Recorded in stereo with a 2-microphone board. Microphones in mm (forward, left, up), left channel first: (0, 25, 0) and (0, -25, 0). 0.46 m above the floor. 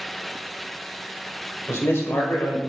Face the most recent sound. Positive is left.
turn(degrees=60)  # may be behind; listen again after turning